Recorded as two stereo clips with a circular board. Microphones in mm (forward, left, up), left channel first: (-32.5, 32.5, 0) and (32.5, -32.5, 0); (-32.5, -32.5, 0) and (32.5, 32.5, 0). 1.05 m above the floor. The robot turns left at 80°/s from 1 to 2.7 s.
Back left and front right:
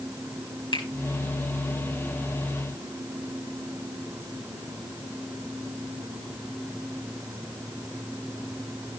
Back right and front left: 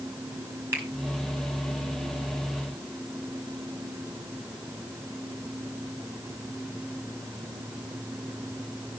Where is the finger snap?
110° left, 5 m.